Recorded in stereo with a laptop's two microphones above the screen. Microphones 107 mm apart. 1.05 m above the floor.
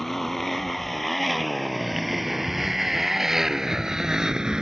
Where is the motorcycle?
5° left (ahead or behind); by 4.6 s 5° right (ahead or behind).